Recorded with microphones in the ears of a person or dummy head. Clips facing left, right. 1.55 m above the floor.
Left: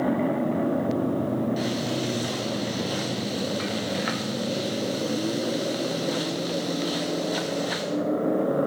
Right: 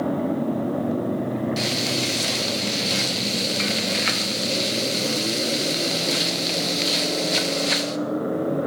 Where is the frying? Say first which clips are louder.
Right 1 dB; 25° right (ahead or behind), 0.5 m.